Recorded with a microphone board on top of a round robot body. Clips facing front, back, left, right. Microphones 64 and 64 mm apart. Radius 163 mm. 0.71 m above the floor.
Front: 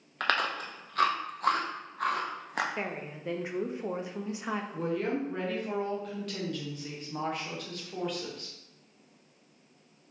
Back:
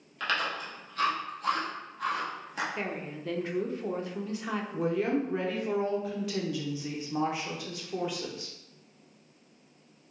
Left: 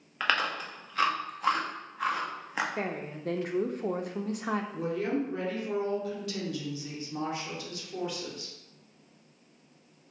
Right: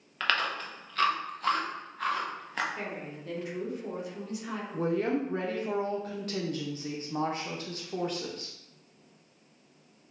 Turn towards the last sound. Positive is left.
turn(degrees=-100)